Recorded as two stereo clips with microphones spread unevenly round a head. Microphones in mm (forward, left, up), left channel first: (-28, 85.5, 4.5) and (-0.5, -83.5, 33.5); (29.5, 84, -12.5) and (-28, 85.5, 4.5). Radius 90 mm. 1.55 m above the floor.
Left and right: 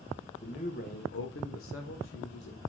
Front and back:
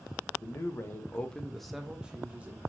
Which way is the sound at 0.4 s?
40° left.